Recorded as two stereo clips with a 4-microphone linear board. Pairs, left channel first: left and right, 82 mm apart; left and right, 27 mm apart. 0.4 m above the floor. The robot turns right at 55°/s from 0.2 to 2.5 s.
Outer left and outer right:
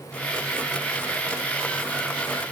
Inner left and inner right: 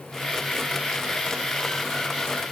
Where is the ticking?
No ticking in this recording.